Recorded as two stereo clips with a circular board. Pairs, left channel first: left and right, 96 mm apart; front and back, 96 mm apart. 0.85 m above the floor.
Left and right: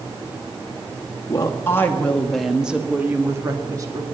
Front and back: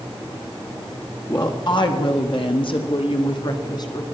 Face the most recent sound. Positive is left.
turn(degrees=-45)